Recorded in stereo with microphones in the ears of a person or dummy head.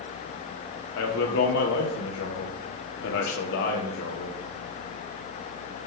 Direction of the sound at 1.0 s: 70° left (ahead or behind).